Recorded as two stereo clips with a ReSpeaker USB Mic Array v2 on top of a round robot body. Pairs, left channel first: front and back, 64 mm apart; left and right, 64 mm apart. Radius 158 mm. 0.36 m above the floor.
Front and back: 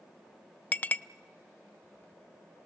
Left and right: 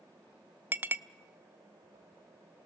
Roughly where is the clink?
Ahead right.